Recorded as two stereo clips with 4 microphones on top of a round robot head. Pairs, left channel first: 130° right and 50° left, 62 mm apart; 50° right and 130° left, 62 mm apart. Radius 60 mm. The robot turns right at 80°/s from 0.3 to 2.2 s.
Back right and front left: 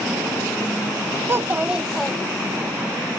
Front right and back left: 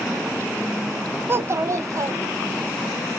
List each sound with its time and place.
1.3 s a child speaking: 90° left, 0.6 m; by 2.7 s 160° left, 0.6 m